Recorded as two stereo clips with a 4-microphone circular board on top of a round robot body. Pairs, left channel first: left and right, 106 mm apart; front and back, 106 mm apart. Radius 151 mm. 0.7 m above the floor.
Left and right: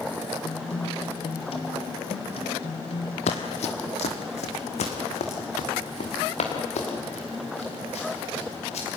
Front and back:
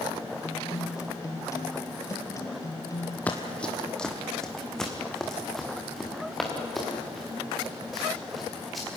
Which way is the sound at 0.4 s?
60° left.